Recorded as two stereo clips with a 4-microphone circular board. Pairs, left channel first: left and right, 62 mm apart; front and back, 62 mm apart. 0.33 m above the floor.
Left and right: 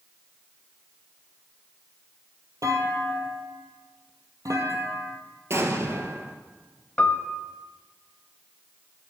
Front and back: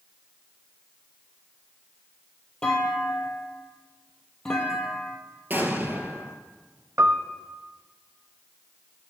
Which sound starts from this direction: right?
A clunk, at 2.6 s.